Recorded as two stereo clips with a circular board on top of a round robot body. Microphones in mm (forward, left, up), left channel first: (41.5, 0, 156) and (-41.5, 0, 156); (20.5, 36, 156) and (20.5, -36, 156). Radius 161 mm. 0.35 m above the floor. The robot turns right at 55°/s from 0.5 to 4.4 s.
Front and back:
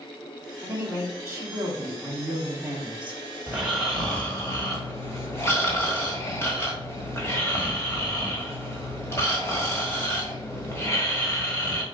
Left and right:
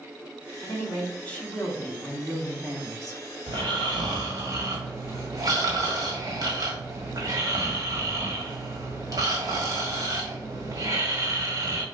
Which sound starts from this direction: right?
Snoring, at 3.5 s.